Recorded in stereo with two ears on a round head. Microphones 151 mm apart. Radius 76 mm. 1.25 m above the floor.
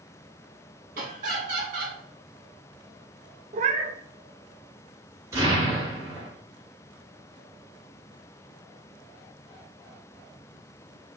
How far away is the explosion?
About 1.8 m.